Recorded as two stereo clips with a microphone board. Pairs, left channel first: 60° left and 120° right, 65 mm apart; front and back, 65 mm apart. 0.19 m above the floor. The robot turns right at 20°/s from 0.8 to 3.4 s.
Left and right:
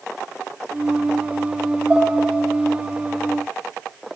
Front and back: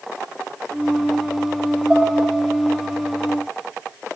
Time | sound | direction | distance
1.9 | dishes clattering | 140° right | 0.7 m